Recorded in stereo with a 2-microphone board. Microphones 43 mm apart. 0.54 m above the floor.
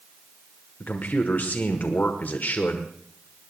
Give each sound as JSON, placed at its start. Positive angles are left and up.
{"t": 0.8, "sound": "a man speaking", "side_deg": 45, "distance_m": 1.3}